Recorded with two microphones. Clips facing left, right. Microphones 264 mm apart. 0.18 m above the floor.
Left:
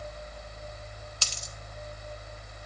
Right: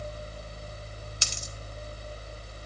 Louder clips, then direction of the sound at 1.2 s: Right 2 dB; 20° right (ahead or behind).